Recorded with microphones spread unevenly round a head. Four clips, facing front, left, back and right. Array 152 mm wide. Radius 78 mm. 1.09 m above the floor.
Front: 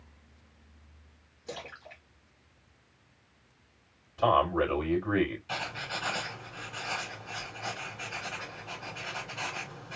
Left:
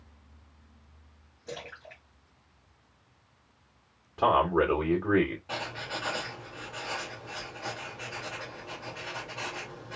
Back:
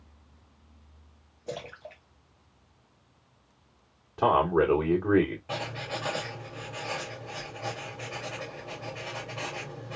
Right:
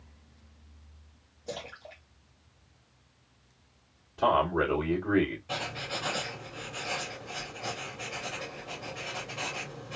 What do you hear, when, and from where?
1.5 s a splash: 170° right, 2.5 m
4.2 s a man speaking: 155° left, 2.5 m
5.5 s writing: 165° left, 3 m